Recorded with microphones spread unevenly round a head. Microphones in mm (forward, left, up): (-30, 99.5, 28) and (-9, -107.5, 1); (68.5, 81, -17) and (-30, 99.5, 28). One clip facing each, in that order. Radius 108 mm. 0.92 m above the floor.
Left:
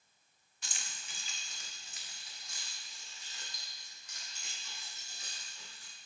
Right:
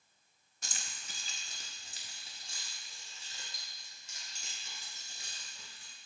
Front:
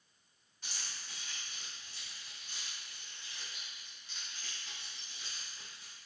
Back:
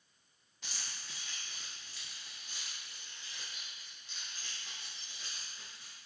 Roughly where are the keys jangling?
Behind right.